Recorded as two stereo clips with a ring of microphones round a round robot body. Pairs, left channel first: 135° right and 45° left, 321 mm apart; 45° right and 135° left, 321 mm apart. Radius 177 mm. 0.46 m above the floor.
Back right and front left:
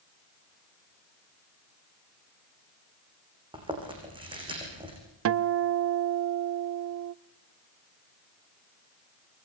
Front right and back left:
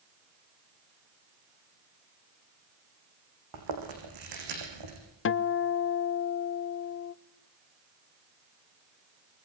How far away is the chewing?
About 7.5 m.